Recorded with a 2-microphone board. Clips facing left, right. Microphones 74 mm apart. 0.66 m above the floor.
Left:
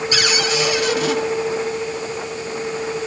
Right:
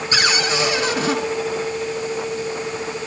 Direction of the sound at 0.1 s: 35° right (ahead or behind).